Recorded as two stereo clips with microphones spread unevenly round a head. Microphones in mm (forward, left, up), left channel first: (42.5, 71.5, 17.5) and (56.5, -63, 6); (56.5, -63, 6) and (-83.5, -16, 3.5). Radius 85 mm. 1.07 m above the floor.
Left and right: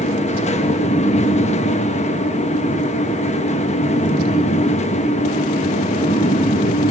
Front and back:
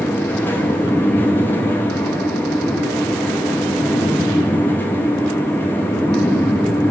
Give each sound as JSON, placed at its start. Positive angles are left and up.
{"t": 0.0, "sound": "a fan", "azimuth_deg": 60, "distance_m": 1.7}